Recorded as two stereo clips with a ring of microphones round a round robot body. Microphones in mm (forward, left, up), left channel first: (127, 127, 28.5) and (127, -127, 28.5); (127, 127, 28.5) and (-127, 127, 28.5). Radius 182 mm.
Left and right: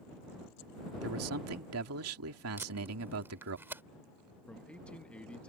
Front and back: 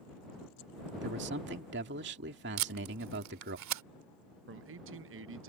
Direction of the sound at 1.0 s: 125° right.